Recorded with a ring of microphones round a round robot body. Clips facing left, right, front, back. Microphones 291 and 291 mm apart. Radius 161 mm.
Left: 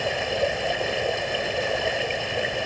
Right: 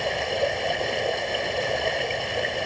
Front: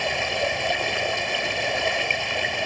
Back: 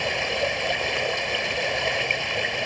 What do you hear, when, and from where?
0.0 s running water: straight ahead